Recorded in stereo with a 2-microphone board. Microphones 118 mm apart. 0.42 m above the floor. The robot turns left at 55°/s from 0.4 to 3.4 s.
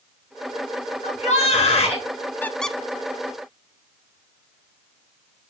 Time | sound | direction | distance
1.0 | a shout | 100° left | 4.5 m
2.4 | a squeak | 20° left (ahead or behind) | 0.5 m